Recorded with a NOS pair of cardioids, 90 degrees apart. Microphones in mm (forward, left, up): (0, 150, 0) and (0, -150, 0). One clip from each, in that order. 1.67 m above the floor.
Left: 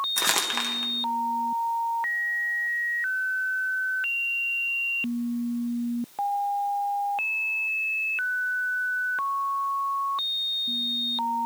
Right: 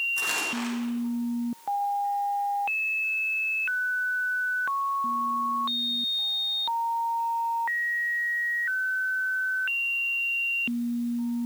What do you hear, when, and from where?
0.2 s crumpling: 65° left, 2 m